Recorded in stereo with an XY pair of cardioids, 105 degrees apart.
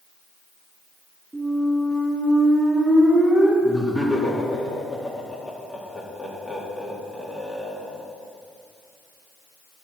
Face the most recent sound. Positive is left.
turn(degrees=25)